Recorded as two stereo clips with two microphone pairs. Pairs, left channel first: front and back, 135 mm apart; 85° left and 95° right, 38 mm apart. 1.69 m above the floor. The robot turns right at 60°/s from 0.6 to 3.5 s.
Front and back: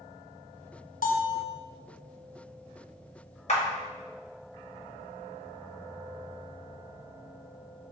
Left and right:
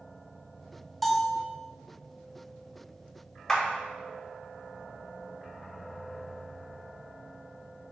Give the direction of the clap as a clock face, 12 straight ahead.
12 o'clock.